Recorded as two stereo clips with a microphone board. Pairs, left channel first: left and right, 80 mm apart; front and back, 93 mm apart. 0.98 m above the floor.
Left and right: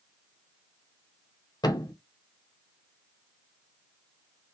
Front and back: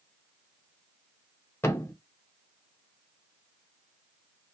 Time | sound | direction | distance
1.6 | a thud | 60° left | 0.6 m